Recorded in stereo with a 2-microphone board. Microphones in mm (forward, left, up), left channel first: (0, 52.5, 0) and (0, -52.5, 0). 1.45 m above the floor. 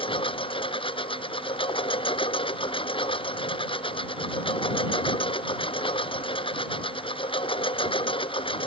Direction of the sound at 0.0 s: 55° left (ahead or behind).